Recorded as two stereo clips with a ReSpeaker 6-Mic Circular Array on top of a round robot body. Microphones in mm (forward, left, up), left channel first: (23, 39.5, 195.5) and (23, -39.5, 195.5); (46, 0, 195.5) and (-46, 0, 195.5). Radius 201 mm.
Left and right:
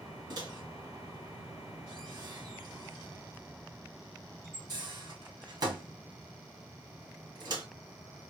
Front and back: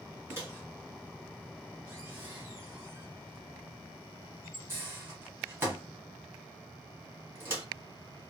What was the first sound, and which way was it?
A microwave, 115° right.